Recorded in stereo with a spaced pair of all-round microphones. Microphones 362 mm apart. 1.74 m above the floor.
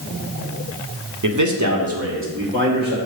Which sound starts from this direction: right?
A man speaking, at 1.2 s.